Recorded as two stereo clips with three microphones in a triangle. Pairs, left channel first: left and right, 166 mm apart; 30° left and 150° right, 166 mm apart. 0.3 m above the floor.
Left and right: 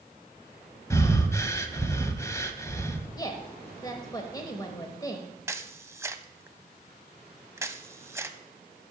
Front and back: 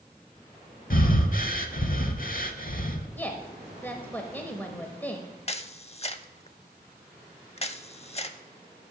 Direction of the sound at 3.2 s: 90° left.